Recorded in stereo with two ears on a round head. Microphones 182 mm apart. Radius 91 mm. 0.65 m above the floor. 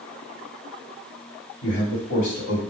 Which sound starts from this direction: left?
A man speaking, at 1.6 s.